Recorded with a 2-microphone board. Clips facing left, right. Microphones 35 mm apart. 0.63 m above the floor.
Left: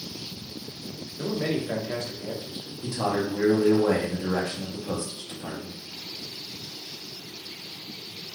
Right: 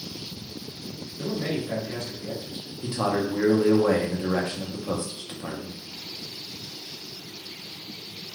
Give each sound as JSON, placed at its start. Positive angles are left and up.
{"t": 1.2, "sound": "a man speaking", "side_deg": 50, "distance_m": 1.0}
{"t": 2.8, "sound": "a man speaking", "side_deg": -25, "distance_m": 0.7}